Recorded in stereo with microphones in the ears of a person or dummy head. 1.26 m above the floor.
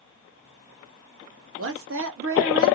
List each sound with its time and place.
1.6 s a woman speaking: 65° right (ahead or behind), 0.7 m